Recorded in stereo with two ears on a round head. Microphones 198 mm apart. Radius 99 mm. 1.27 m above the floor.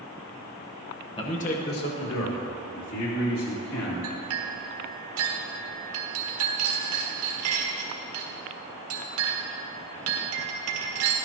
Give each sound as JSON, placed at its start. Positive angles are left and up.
{"t": 1.2, "sound": "a man speaking", "side_deg": 25, "distance_m": 1.4}
{"t": 4.0, "sound": "a clink", "side_deg": -70, "distance_m": 1.6}